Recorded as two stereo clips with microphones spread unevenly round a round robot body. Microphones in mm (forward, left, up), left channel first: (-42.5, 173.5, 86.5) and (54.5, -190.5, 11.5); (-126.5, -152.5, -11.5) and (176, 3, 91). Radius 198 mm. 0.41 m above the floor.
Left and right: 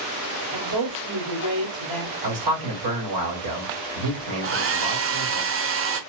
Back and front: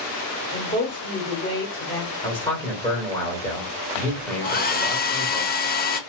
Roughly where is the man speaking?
Right.